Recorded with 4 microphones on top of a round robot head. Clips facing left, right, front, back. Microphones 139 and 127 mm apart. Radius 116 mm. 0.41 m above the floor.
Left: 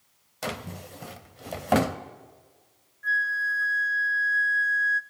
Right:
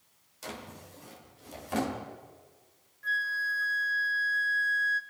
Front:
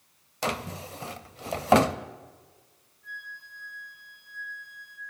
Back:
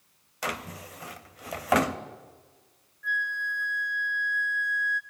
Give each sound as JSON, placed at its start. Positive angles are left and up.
{"t": 0.4, "sound": "a drawer", "azimuth_deg": 60, "distance_m": 1.2}
{"t": 3.0, "sound": "a flute", "azimuth_deg": -155, "distance_m": 1.1}